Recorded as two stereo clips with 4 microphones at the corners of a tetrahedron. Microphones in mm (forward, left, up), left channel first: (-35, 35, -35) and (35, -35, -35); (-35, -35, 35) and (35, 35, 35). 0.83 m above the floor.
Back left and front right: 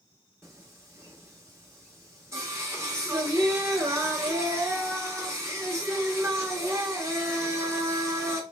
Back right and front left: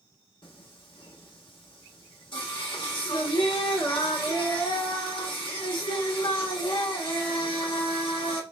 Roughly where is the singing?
Right.